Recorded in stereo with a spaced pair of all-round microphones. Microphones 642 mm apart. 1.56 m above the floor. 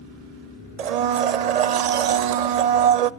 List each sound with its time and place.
0.8 s a blender: 70° right (ahead or behind), 0.6 m